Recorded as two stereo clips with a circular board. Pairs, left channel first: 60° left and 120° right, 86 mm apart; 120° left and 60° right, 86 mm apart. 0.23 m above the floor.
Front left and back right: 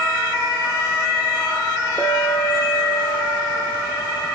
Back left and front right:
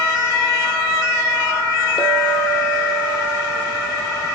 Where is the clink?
125° left, 4 m.